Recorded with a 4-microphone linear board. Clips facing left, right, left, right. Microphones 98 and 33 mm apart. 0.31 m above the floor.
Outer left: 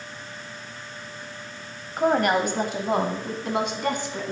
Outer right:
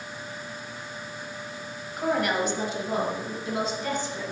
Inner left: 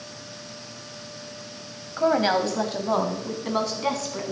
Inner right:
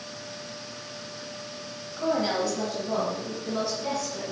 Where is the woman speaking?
45° left (ahead or behind), 1.4 m; by 4.3 s 70° left (ahead or behind), 2.5 m.